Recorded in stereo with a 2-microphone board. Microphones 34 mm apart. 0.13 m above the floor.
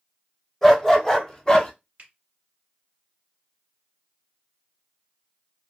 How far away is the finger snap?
About 1.9 m.